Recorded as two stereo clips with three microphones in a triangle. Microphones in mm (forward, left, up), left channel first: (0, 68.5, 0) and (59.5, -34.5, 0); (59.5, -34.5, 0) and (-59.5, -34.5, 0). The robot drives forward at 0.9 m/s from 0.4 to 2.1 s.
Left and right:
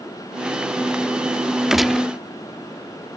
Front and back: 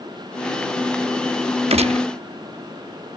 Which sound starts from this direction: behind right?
A gunshot, at 1.7 s.